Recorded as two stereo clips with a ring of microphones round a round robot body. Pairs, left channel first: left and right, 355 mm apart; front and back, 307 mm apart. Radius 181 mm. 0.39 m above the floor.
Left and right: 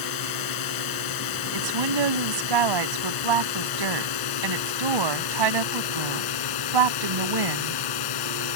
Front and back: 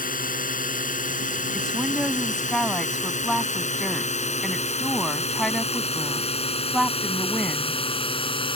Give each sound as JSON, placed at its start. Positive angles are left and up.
{"t": 0.0, "sound": "a drone", "azimuth_deg": 60}
{"t": 1.5, "sound": "a woman speaking", "azimuth_deg": -90}